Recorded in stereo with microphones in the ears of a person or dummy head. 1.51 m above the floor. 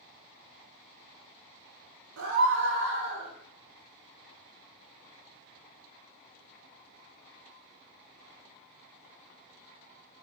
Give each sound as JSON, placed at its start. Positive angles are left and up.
{"t": 2.2, "sound": "a scream", "side_deg": -80, "distance_m": 1.2}